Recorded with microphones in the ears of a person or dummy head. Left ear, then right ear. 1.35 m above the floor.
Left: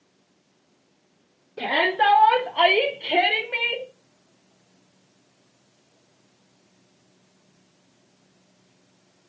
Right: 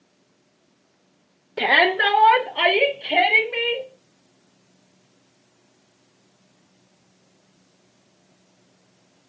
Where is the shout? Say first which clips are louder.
Right 4 dB; 40° right (ahead or behind), 0.6 m; by 3.9 s 45° left (ahead or behind), 1.5 m.